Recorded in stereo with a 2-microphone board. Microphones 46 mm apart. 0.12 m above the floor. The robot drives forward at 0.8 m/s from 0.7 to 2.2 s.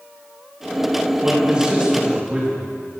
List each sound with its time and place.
1.2 s a man speaking: 20° right (ahead or behind), 7 m